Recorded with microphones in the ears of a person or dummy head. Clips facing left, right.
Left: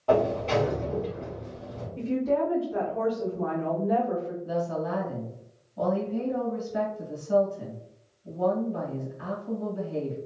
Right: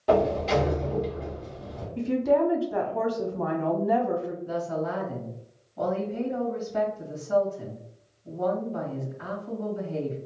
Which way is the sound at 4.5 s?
10° left (ahead or behind).